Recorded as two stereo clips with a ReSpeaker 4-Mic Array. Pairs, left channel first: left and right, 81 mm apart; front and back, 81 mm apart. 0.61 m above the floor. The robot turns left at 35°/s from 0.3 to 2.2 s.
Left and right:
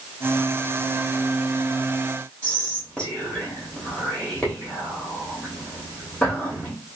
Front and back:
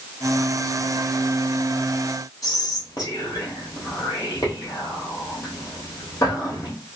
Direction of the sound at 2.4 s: 10° left.